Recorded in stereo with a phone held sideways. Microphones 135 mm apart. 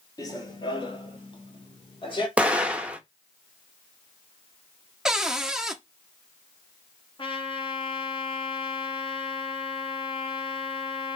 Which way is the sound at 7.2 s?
40° left (ahead or behind).